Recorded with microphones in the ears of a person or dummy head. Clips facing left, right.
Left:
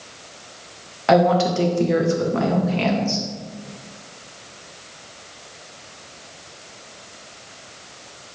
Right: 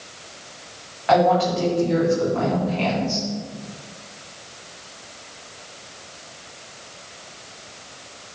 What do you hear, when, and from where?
1.1 s a woman speaking: 55° left (ahead or behind), 1.7 m